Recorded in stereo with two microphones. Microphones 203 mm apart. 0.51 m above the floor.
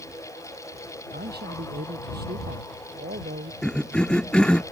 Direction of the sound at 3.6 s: 5° left (ahead or behind).